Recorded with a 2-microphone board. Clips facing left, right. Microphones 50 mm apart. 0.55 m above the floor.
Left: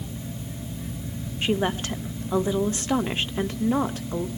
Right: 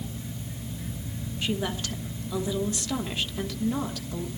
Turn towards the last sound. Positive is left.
turn(degrees=35)  # may be behind; listen again after turning